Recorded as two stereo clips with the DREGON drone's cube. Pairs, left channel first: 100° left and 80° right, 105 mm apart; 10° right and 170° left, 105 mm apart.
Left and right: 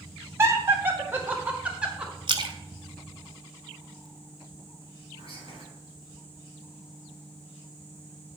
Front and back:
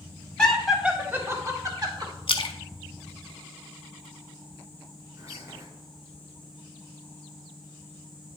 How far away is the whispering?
About 3.5 m.